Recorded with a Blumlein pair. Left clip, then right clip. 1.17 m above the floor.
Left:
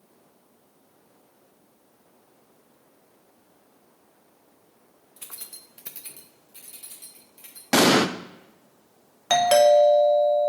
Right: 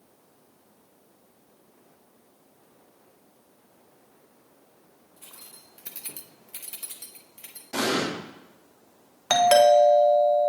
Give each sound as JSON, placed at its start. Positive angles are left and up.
{"t": 5.2, "sound": "keys jangling", "azimuth_deg": 50, "distance_m": 1.1}
{"t": 7.7, "sound": "an explosion", "azimuth_deg": 40, "distance_m": 0.6}
{"t": 9.3, "sound": "a doorbell", "azimuth_deg": -5, "distance_m": 1.1}